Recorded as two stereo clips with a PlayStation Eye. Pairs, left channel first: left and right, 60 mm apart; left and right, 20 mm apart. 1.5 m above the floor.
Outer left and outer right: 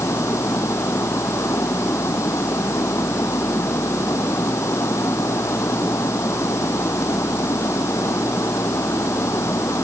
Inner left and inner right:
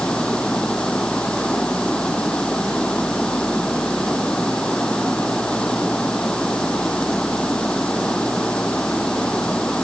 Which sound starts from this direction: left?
Running water, at 0.0 s.